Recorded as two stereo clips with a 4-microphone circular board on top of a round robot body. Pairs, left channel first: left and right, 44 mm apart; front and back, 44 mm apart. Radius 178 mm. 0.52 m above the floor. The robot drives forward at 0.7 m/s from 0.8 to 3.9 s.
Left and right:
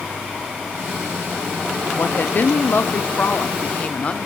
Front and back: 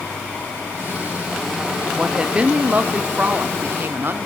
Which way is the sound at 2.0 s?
110° left.